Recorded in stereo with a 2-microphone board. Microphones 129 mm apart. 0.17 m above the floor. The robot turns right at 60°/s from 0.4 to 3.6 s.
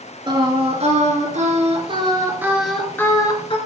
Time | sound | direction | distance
0.3 | singing | 140° right | 3.5 m